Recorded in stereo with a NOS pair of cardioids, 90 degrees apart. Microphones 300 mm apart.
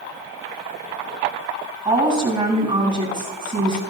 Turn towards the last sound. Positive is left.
turn(degrees=-25)